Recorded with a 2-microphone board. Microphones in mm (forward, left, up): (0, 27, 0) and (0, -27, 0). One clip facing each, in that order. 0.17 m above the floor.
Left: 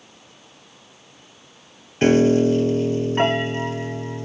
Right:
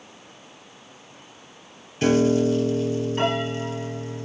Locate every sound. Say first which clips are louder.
2.0 s a piano: left 3 dB; 35° left (ahead or behind), 0.8 m